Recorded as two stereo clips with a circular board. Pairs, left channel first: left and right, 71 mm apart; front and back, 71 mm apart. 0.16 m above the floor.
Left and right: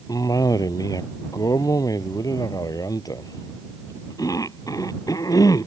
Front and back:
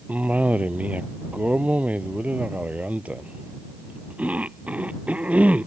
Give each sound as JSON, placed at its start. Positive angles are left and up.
{"t": 0.1, "sound": "a cough", "azimuth_deg": 110}